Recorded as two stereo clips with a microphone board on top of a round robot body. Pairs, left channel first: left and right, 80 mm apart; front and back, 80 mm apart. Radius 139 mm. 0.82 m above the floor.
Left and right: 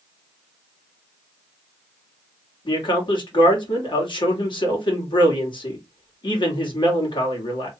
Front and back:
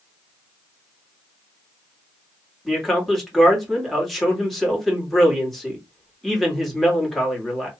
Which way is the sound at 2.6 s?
90° left.